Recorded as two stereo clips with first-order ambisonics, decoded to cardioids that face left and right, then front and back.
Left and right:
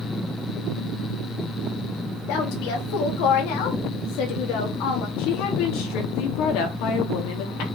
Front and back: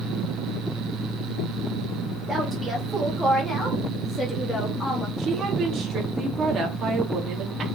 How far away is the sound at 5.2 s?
About 3 m.